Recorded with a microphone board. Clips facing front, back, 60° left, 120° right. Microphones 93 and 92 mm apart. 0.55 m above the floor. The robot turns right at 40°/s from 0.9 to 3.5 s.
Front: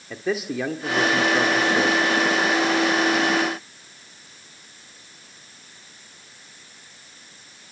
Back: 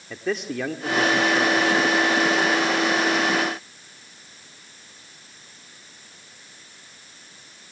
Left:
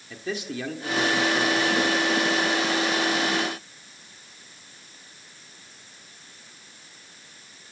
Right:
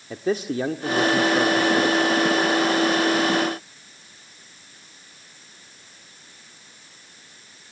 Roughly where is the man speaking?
Right.